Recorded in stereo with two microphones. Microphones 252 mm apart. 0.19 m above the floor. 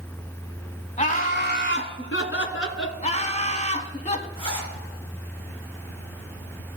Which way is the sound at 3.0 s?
25° left (ahead or behind).